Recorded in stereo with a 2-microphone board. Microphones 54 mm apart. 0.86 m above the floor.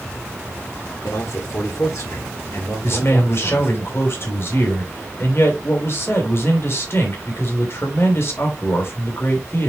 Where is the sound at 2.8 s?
55° left (ahead or behind), 3 m.